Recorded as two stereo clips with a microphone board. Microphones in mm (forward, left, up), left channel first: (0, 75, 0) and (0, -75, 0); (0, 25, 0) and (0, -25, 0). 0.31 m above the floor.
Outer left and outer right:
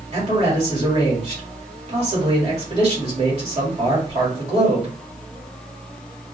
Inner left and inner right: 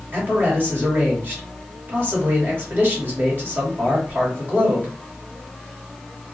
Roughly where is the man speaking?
Right.